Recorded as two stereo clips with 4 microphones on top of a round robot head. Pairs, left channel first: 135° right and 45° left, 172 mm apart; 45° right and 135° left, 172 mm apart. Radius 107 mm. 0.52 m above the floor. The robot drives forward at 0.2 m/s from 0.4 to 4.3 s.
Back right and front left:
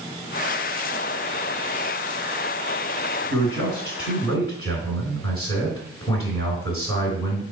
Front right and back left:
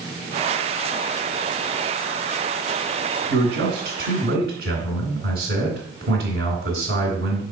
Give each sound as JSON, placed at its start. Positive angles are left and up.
{"t": 3.3, "sound": "a man speaking", "azimuth_deg": 160, "distance_m": 2.5}